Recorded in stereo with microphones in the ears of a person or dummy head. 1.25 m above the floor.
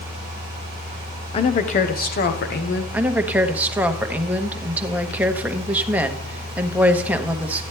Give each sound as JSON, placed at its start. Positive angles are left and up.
{"t": 1.3, "sound": "a woman speaking", "side_deg": 30, "distance_m": 0.7}
{"t": 2.9, "sound": "a woman speaking", "side_deg": -10, "distance_m": 0.9}